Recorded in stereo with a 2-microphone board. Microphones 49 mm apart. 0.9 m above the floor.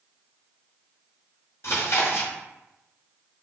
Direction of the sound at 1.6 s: 60° left (ahead or behind).